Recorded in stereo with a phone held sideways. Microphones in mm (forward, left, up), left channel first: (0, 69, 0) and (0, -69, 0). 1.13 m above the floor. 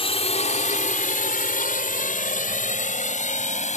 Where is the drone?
45° left (ahead or behind); by 3.8 s 60° left (ahead or behind).